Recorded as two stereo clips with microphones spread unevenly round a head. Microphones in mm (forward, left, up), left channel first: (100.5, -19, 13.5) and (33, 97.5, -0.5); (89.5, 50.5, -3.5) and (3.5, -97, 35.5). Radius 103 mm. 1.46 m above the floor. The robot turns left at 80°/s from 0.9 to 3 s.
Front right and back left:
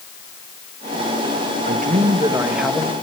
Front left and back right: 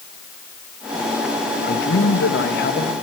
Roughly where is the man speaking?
Left.